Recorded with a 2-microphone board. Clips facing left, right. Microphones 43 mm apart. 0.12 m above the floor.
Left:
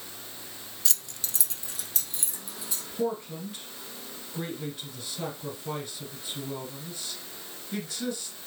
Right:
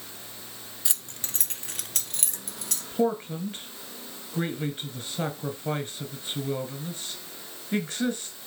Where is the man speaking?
35° right (ahead or behind), 1.4 m.